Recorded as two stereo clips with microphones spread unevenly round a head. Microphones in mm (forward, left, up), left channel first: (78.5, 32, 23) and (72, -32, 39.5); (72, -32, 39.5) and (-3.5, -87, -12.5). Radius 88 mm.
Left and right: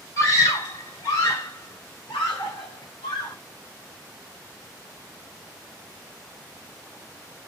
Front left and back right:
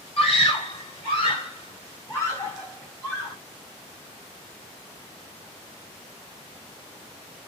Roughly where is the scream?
Ahead left.